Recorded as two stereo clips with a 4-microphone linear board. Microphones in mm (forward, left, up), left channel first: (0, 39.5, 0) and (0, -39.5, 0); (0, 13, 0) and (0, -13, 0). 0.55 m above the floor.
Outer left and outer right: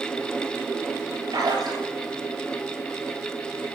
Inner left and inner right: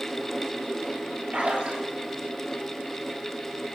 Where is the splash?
60° right (ahead or behind), 7.5 m.